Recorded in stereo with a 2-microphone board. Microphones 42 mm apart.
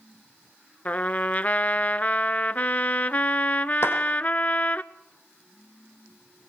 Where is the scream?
No scream in this recording.